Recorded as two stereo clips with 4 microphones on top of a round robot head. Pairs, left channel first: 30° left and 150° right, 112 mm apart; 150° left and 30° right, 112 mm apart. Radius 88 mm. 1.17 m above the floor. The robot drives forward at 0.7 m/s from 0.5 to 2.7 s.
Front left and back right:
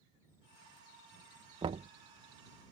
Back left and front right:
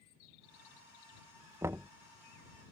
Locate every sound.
1.6 s knocking: 95° right; by 1.9 s 115° right